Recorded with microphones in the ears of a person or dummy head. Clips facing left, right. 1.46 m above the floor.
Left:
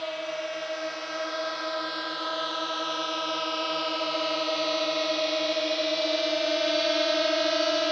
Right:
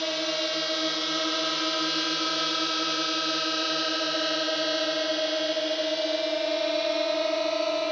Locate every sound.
0.0 s a drone: 60° right (ahead or behind); by 7.9 s 10° left (ahead or behind)